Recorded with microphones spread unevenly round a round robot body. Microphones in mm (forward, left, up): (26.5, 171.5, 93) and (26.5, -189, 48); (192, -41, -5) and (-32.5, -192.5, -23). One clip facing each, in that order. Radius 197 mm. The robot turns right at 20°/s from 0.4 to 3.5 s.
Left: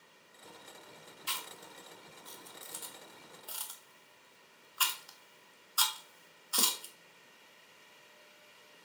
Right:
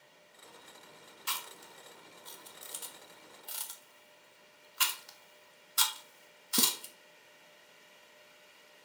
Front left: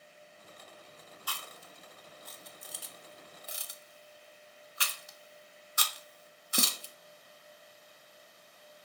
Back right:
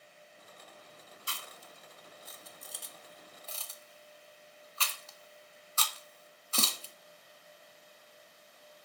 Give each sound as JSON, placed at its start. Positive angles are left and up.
{"t": 1.3, "sound": "chewing", "azimuth_deg": -85, "distance_m": 1.8}